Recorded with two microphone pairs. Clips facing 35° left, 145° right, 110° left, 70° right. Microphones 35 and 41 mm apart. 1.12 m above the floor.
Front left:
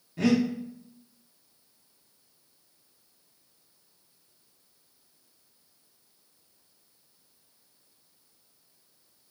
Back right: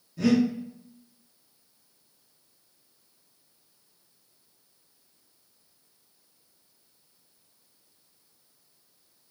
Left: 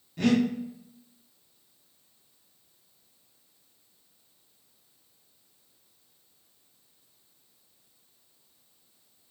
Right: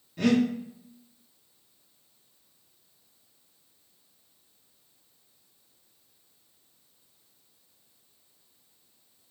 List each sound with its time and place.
0.2 s breathing: 15° left, 0.7 m